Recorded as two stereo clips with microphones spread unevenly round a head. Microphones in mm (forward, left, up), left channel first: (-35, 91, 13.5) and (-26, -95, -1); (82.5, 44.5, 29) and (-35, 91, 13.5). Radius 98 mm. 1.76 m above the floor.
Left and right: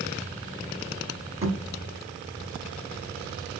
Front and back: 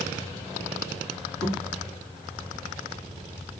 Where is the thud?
130° right, 2 m.